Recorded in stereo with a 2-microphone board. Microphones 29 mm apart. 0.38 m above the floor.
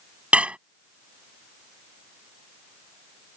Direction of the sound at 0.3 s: 45° right (ahead or behind).